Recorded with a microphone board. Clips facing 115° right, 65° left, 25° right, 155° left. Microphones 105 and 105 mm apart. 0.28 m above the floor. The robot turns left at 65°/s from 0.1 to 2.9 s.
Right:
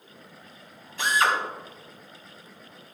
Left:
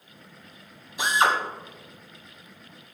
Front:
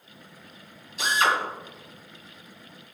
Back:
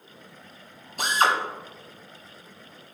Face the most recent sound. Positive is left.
turn(degrees=10)